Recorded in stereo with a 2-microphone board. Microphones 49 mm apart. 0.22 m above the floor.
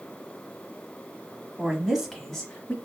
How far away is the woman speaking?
About 1.2 m.